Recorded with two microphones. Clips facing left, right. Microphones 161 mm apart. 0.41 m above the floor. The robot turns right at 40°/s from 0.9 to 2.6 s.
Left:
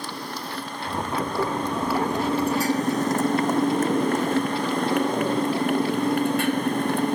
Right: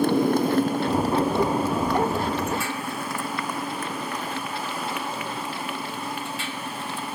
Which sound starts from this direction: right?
A motorcycle, at 0.0 s.